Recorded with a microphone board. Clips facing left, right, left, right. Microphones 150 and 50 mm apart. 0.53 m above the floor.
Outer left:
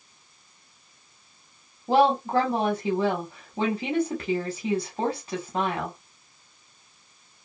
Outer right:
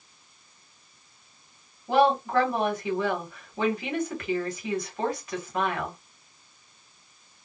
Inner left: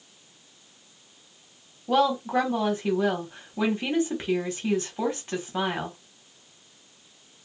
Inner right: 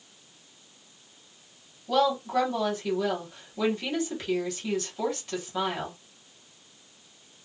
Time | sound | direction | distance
1.9 | a woman speaking | 30° left (ahead or behind) | 1.4 m